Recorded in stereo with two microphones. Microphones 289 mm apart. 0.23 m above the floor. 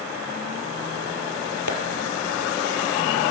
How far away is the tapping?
About 2.5 m.